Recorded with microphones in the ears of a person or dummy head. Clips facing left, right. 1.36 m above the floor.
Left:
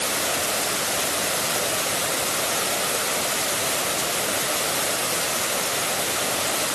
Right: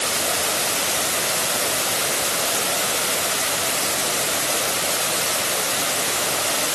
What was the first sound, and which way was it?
Only background noise.